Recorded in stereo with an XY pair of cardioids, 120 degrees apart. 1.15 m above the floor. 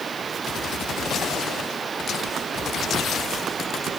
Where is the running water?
35° right.